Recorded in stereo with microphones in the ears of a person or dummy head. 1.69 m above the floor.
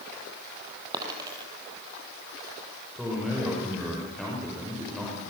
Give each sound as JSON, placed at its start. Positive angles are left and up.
{"t": 0.9, "sound": "a dropped coin", "side_deg": -20, "distance_m": 4.0}
{"t": 3.0, "sound": "a man speaking", "side_deg": 0, "distance_m": 6.0}